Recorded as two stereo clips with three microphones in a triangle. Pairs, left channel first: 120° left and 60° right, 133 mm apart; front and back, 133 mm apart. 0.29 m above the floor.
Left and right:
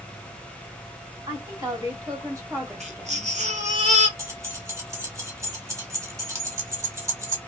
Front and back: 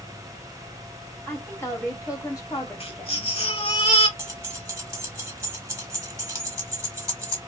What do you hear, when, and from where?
1.3 s a woman speaking: 65° right, 1.6 m; by 3.3 s 5° left, 1.8 m
2.8 s a baby crying: 35° right, 0.9 m
4.2 s keys jangling: 120° right, 1.1 m